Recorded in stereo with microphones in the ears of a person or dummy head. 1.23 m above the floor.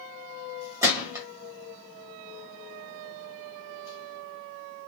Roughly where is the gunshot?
Centre.